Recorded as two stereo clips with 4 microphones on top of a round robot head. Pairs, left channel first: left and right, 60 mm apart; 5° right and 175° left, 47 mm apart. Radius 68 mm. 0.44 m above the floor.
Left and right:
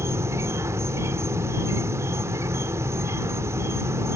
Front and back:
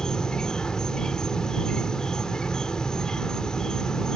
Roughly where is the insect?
Right.